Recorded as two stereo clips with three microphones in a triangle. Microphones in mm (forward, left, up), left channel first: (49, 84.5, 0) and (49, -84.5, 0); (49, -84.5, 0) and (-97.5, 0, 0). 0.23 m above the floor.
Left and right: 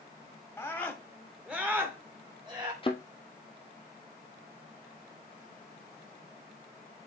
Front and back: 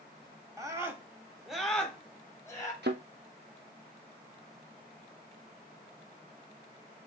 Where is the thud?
145° left, 1.2 m.